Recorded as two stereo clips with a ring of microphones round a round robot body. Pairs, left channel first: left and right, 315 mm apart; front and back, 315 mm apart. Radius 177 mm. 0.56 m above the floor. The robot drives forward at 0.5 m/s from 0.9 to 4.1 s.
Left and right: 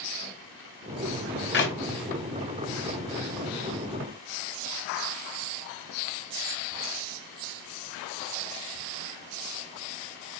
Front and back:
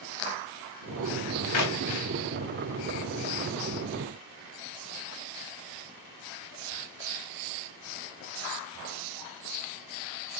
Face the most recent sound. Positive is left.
turn(degrees=75)